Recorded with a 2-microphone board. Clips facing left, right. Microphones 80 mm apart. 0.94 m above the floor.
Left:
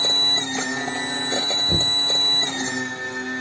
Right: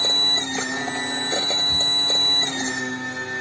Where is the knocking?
60° left (ahead or behind).